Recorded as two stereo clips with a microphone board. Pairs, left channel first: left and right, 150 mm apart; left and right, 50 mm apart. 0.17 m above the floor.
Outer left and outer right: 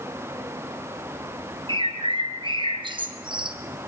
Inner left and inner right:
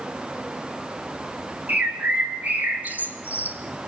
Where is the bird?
35° right (ahead or behind), 1.4 m.